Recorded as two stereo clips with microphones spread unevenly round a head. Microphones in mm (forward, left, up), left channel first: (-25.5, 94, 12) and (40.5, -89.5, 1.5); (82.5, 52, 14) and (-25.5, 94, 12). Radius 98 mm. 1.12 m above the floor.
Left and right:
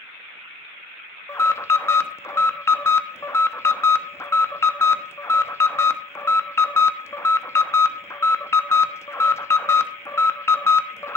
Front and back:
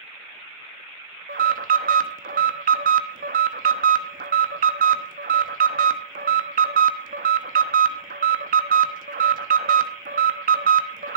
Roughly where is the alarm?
Behind.